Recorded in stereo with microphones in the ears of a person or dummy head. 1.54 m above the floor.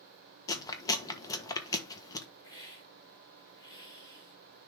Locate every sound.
0.5 s chewing: 25° left (ahead or behind), 1.2 m
2.4 s a hiss: 25° left (ahead or behind), 3 m